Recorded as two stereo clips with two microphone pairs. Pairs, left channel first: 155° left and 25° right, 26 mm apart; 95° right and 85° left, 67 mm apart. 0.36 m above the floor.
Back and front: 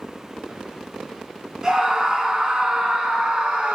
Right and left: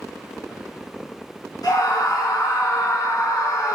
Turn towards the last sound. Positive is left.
turn(degrees=-65)